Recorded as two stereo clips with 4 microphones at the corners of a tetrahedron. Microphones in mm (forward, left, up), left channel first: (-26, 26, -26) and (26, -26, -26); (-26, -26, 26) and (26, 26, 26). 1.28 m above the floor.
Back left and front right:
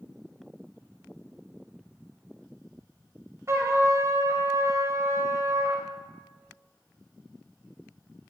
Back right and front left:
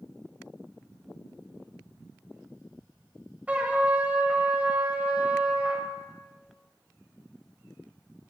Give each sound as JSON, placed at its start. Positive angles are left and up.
{"t": 3.5, "sound": "a trumpet", "azimuth_deg": -15, "distance_m": 1.4}